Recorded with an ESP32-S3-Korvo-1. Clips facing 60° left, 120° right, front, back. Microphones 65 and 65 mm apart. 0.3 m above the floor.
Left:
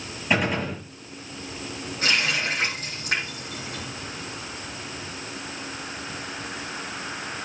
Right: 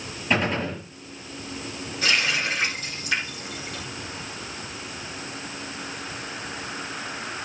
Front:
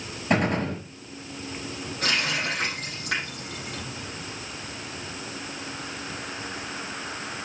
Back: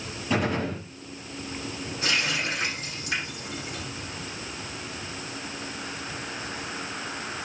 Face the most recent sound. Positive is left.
turn(degrees=15)